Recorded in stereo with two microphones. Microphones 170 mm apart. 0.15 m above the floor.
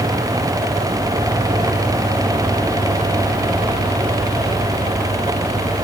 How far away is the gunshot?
No gunshot in this recording.